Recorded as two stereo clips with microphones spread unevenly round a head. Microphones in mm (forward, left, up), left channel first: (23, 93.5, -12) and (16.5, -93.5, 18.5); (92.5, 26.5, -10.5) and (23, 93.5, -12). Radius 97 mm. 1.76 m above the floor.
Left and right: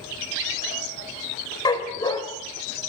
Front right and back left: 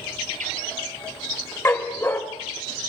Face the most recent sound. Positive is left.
turn(degrees=15)